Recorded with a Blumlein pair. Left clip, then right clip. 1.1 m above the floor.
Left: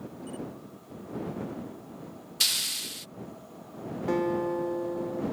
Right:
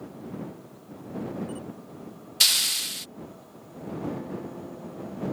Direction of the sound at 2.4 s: 15° right.